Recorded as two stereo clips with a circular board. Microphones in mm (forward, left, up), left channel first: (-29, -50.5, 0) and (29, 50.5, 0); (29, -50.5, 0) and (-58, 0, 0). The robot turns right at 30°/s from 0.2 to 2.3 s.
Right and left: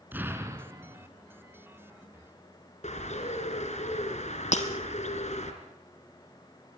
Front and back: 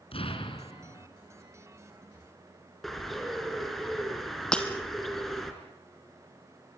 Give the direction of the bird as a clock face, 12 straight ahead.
4 o'clock.